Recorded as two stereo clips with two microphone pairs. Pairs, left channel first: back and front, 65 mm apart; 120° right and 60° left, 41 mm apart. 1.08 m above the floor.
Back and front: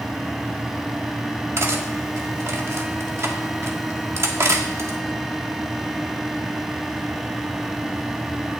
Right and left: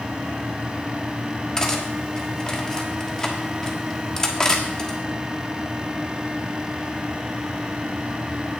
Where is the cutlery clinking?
45° right, 1.3 m.